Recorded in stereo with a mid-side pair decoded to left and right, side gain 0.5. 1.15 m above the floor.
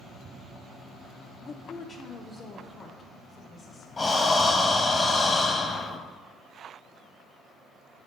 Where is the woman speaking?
45° left, 0.5 m; by 3.9 s 50° left, 2 m.